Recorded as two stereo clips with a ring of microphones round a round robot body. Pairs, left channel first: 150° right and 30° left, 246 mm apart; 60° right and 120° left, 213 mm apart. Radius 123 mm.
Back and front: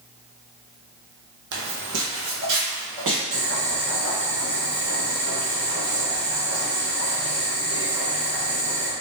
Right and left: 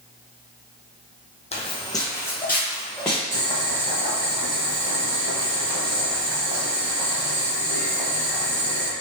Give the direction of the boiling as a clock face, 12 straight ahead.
10 o'clock.